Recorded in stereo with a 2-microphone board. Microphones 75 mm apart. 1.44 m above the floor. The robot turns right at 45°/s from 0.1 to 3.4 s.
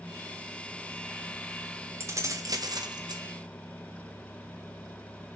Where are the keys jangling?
140° right, 1.0 m; by 3.2 s 85° right, 1.0 m.